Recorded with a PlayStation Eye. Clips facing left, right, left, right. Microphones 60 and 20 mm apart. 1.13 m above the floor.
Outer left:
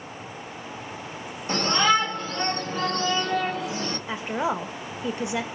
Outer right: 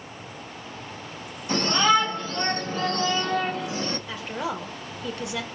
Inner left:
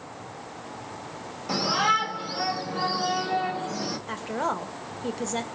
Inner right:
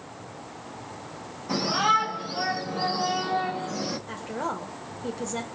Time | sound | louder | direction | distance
1.5 | a shout | outer right 1 dB, even | 35° left (ahead or behind) | 3 m
4.1 | a woman speaking | outer left 4 dB, inner left 3 dB | 25° left (ahead or behind) | 0.9 m